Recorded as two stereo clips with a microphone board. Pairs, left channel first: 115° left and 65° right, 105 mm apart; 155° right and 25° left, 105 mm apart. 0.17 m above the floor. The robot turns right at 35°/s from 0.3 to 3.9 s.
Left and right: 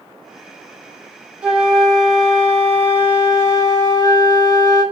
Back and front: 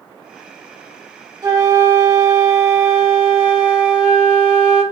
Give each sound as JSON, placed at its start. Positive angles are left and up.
{"t": 1.4, "sound": "a flute", "azimuth_deg": 0, "distance_m": 0.9}